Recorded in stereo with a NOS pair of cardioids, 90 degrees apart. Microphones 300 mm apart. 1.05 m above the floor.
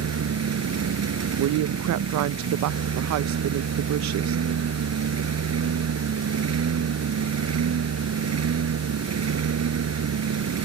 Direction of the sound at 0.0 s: 55° right.